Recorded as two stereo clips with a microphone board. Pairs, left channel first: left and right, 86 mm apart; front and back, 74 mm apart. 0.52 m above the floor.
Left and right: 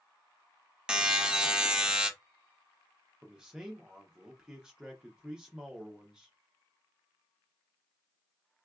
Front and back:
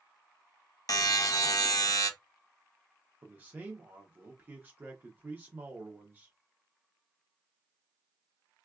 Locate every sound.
0.9 s a buzzer: 15° right, 0.6 m
3.2 s a man speaking: 160° right, 0.7 m